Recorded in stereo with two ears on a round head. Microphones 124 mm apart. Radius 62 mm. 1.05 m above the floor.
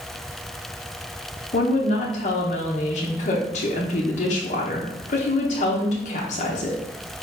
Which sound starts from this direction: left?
A woman speaking, at 1.5 s.